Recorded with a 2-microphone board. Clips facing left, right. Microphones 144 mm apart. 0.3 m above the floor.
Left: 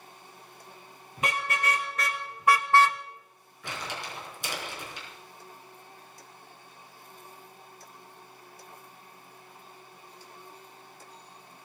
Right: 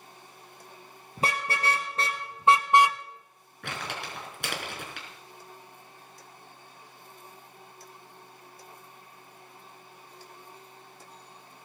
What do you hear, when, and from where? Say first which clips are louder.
1.2 s a car horn: right 1 dB; 35° right (ahead or behind), 3 m; by 3.0 s 5° right (ahead or behind), 0.6 m
3.6 s crumpling: right 1 dB; 65° right (ahead or behind), 4.5 m